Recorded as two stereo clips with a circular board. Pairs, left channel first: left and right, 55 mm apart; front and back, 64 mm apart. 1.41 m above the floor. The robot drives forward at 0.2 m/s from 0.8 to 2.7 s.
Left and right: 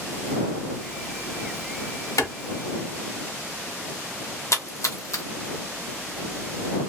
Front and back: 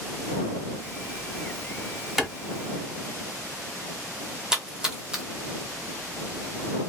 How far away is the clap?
About 0.8 m.